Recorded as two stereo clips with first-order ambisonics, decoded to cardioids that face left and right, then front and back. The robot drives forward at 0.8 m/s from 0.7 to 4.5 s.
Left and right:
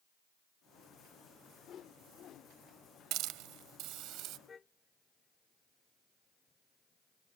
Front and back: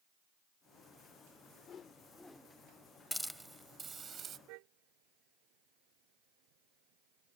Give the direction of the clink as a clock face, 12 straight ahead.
No clink in this recording.